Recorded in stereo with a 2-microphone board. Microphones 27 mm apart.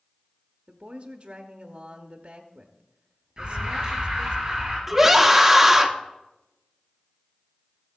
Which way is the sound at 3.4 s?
25° right (ahead or behind).